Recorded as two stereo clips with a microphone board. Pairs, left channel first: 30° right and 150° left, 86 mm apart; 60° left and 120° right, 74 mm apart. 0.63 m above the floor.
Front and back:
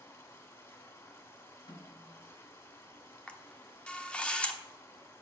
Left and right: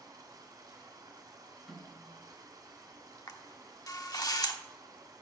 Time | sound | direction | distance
0.0 | running water | 85° right | 2.0 m
1.7 | a snare drum | 25° right | 3 m
3.3 | a camera shutter | 45° left | 1.0 m